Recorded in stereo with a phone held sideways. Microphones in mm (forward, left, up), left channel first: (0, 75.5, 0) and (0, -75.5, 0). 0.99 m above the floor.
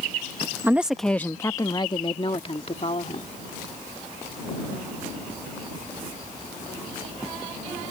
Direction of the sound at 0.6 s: 15° right (ahead or behind).